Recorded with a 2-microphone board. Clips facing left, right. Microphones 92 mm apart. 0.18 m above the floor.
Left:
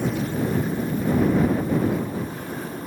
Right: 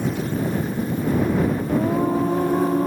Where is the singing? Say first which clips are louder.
Right 3 dB; 75° right (ahead or behind).